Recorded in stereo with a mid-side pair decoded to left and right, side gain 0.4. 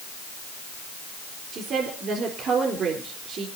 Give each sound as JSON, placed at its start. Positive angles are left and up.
{"t": 1.5, "sound": "a woman speaking", "azimuth_deg": -65, "distance_m": 4.0}